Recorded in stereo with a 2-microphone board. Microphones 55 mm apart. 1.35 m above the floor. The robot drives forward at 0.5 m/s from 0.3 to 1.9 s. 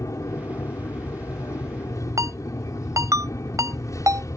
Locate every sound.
0.0 s an aircraft: 75° left (ahead or behind)
2.2 s a ringtone: 80° right